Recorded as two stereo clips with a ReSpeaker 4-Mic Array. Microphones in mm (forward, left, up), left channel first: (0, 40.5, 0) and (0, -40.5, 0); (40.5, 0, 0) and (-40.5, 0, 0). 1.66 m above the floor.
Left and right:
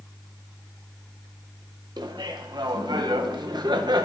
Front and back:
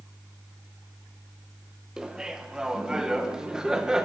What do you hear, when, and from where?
2.0 s laughter: 100° right, 1.2 m